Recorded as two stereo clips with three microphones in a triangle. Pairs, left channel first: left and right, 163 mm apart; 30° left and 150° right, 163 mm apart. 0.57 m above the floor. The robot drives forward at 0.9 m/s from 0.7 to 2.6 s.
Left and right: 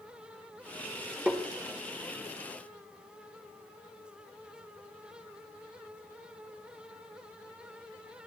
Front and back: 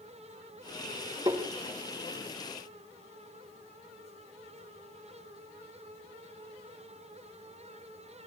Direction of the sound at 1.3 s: 170° right.